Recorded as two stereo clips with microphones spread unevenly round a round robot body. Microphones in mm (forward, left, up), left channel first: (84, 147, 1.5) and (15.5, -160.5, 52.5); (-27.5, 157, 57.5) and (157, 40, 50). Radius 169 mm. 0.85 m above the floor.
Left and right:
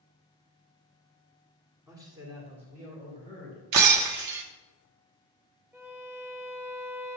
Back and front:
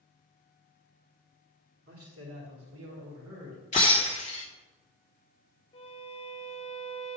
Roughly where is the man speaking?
Ahead.